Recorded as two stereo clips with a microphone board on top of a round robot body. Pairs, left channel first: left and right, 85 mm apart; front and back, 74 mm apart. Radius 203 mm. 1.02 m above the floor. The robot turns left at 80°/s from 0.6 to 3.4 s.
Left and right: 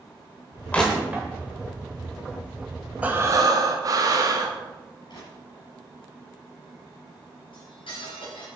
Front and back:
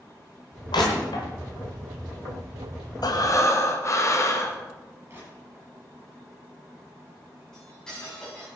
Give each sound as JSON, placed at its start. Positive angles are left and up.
{"t": 0.7, "sound": "crushing", "azimuth_deg": 15, "distance_m": 1.1}
{"t": 3.0, "sound": "breathing", "azimuth_deg": -15, "distance_m": 1.6}
{"t": 5.1, "sound": "crushing", "azimuth_deg": 120, "distance_m": 6.5}
{"t": 7.5, "sound": "cutlery clinking", "azimuth_deg": 80, "distance_m": 6.5}